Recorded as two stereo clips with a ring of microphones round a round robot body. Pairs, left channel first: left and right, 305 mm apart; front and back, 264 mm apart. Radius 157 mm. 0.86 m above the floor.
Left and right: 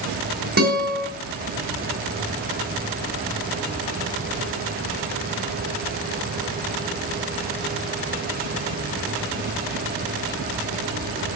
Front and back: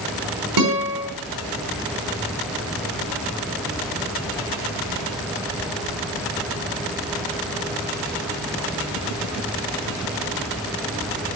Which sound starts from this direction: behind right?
A guitar, at 0.6 s.